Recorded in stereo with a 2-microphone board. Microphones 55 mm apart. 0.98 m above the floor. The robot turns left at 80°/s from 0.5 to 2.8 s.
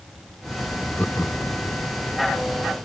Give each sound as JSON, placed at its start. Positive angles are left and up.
{"t": 1.0, "sound": "laughter", "side_deg": 25}